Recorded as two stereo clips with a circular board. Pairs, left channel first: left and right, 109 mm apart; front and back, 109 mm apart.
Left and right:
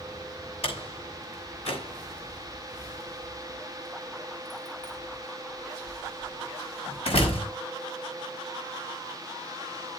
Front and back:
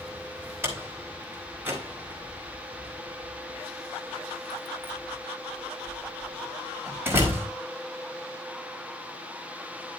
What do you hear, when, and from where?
0.6 s a door slam: 110° left, 4.5 m